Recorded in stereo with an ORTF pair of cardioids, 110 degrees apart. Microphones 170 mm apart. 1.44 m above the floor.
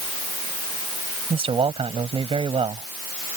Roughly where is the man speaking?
Ahead right.